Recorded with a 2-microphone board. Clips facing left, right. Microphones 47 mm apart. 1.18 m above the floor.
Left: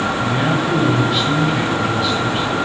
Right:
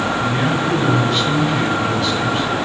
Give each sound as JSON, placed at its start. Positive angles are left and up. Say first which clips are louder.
{"t": 0.2, "sound": "a man speaking", "louder": "even", "side_deg": 10, "distance_m": 6.5}